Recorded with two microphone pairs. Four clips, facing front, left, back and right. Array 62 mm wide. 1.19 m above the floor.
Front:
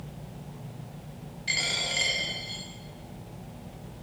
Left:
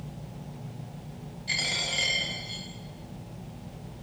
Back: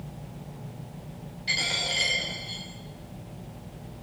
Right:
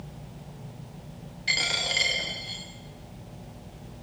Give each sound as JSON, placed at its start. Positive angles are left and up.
{"t": 1.5, "sound": "a dropped coin", "azimuth_deg": -80, "distance_m": 9.5}